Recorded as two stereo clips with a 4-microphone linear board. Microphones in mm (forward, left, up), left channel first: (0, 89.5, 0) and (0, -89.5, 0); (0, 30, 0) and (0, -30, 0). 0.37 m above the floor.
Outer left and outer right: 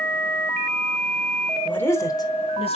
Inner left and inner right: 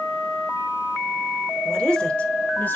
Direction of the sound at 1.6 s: 10° left (ahead or behind).